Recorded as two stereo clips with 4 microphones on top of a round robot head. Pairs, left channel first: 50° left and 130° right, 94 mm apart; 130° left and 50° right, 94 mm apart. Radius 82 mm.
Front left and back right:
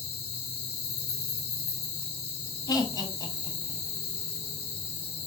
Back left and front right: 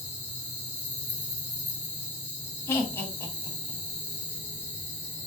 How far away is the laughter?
About 1.2 m.